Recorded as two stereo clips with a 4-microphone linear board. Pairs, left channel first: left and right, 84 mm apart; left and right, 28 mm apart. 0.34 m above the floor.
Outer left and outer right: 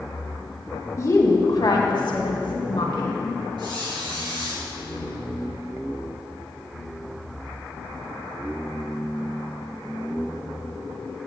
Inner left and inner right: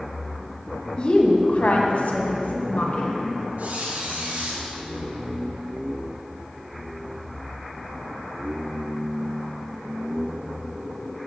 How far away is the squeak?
About 4.5 m.